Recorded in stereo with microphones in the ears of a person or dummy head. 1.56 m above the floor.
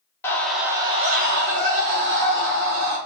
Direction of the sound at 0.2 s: 15° left (ahead or behind).